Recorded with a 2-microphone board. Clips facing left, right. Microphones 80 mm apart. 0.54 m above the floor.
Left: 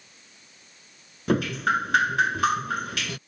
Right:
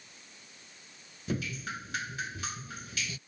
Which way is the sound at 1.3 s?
70° left (ahead or behind).